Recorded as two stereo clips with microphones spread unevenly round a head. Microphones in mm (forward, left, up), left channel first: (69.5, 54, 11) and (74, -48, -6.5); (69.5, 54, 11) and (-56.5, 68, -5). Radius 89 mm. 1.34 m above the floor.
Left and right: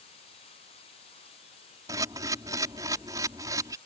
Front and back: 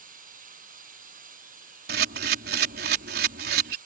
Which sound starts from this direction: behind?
A camera shutter, at 1.9 s.